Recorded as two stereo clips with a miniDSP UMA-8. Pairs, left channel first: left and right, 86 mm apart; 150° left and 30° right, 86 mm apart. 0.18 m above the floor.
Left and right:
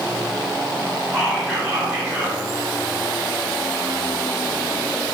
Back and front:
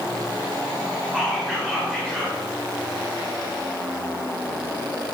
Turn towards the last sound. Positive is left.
turn(degrees=-150)